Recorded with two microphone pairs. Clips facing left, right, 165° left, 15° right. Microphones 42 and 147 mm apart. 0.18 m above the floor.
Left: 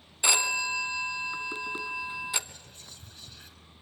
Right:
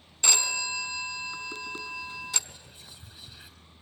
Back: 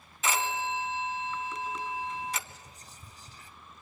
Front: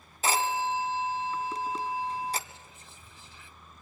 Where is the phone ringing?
20° left, 1.0 m.